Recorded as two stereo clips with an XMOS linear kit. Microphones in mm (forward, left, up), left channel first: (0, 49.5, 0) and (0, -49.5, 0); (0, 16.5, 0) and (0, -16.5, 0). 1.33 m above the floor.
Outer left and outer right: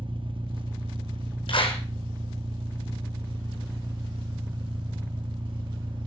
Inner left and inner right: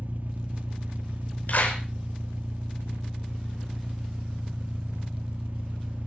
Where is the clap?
60° left (ahead or behind), 5.5 m.